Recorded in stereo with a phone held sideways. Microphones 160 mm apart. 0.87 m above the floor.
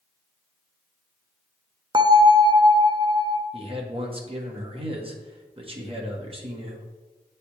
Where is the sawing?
No sawing in this recording.